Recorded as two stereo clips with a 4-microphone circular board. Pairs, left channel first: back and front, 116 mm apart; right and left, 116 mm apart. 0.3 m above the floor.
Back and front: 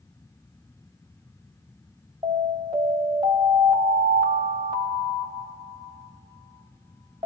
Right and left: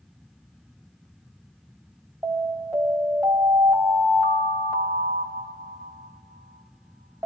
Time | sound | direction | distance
2.2 | an alarm | 35° left | 2.5 m